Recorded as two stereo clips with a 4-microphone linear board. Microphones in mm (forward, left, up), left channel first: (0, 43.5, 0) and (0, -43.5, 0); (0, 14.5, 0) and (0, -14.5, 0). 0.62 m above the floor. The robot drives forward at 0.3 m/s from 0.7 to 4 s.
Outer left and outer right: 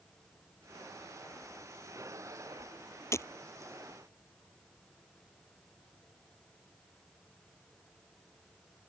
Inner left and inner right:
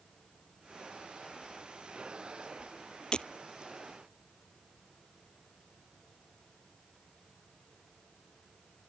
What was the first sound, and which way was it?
Breaking glass, 30° left (ahead or behind).